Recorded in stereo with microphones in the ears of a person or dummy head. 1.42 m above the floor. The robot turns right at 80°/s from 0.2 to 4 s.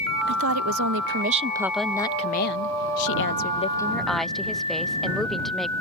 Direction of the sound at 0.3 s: 120° right.